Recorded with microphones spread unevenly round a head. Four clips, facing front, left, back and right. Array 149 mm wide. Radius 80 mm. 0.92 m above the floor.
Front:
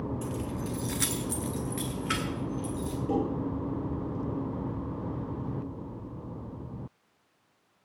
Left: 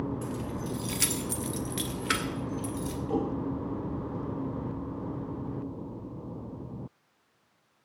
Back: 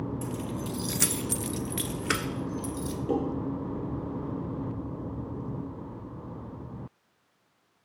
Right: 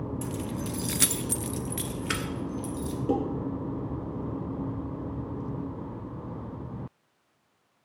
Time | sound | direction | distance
0.2 | keys jangling | 85° right | 0.8 m
3.1 | dishes clattering | 100° right | 7 m